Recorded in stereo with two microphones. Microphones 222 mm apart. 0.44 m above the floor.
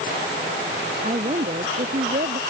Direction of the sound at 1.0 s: 35° right (ahead or behind).